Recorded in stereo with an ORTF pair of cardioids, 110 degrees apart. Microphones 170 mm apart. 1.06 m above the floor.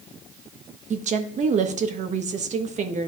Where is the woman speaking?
50° right, 1.2 m.